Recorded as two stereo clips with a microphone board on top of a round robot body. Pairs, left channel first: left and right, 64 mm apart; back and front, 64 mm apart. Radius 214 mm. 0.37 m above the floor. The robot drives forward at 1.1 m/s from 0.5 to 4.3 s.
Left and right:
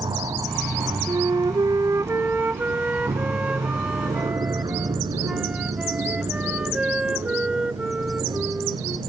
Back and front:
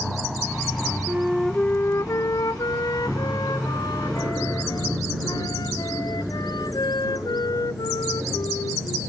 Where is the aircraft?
90° right; by 9.1 s 80° right.